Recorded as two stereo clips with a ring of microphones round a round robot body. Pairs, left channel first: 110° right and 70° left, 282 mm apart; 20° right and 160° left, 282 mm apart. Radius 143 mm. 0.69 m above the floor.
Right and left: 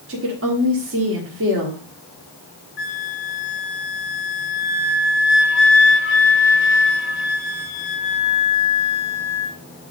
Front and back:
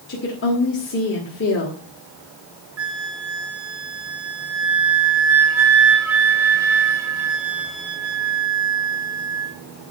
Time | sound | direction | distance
0.1 | a woman speaking | 25° left | 2 m
2.8 | a flute | 160° right | 2 m